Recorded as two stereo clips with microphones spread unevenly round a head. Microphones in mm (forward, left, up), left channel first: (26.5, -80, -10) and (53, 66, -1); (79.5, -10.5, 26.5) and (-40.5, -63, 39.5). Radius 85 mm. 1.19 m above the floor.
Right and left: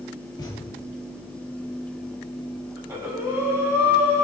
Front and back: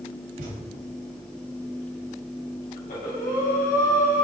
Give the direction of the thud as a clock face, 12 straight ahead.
6 o'clock.